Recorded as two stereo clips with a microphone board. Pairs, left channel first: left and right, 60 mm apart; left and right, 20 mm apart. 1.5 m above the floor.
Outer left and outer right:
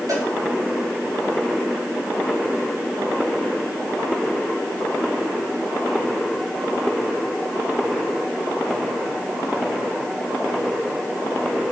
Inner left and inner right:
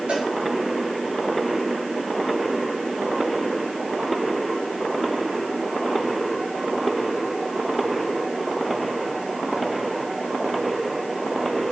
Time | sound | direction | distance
0.1 | a cowbell | 75° right (ahead or behind) | 8 m